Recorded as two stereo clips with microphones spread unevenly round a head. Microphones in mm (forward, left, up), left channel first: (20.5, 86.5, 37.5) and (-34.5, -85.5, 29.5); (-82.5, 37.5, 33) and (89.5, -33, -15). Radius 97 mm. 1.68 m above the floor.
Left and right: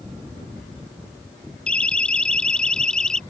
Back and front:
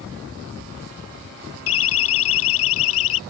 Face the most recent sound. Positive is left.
turn(degrees=160)